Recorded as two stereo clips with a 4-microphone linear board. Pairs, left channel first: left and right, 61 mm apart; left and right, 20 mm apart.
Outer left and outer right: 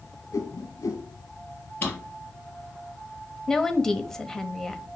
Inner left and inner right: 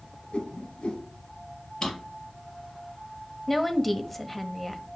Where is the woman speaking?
10° left (ahead or behind), 0.9 m.